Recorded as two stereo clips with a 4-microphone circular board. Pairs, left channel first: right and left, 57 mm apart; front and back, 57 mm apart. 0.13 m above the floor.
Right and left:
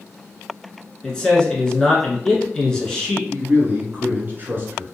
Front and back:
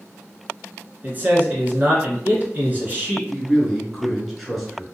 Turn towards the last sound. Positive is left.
turn(degrees=85)